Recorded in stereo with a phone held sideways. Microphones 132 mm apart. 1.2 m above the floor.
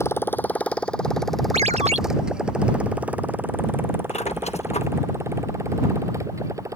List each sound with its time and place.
0.0 s a motorcycle: 20° left (ahead or behind); by 6.8 s 25° right (ahead or behind)
1.5 s a ringtone: 55° right (ahead or behind)
4.1 s a squeak: 55° left (ahead or behind)